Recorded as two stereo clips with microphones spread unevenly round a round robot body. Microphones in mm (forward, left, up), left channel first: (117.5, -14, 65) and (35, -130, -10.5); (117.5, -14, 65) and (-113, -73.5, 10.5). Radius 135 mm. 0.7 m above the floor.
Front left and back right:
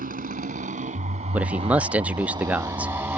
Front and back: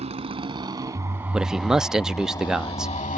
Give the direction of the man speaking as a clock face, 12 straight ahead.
3 o'clock.